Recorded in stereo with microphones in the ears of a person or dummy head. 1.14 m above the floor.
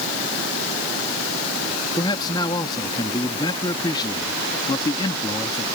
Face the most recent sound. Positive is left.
turn(degrees=25)  # may be behind; listen again after turning